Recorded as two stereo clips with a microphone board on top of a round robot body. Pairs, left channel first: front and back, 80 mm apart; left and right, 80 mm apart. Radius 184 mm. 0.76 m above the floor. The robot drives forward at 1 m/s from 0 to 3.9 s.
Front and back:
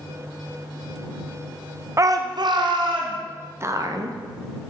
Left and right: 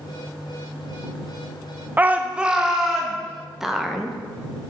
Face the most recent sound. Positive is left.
turn(degrees=-175)